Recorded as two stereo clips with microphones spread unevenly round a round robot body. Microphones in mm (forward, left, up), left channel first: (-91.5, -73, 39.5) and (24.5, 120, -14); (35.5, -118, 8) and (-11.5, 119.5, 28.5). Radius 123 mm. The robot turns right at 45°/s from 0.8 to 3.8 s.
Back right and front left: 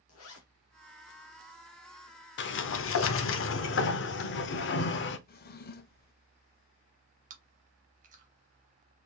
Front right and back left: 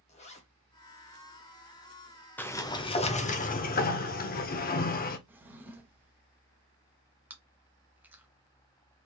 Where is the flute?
I don't hear a flute.